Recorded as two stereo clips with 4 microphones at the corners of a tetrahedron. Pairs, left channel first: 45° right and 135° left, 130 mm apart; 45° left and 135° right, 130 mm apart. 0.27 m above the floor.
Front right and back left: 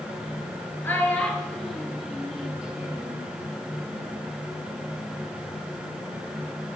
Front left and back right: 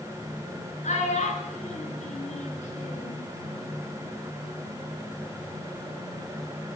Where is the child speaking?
30° left, 3.5 m; by 3.2 s 60° left, 4 m.